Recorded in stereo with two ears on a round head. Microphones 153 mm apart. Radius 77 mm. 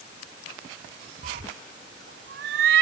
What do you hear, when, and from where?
1.2 s a cat meowing: 45° right (ahead or behind); by 2.8 s 75° right (ahead or behind)